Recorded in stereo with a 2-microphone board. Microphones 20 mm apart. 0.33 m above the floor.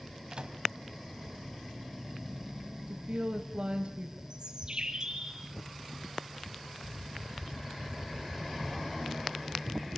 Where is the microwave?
50° right (ahead or behind), 2 m.